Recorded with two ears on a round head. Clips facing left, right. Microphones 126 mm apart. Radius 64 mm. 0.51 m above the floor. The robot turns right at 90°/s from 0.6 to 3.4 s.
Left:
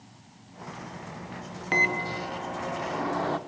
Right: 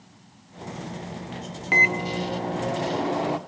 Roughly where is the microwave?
Behind.